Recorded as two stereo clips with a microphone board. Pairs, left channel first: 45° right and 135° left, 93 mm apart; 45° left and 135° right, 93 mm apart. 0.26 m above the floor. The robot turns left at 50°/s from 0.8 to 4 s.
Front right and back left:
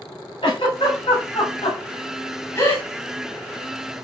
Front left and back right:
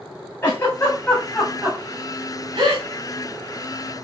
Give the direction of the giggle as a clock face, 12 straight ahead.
1 o'clock.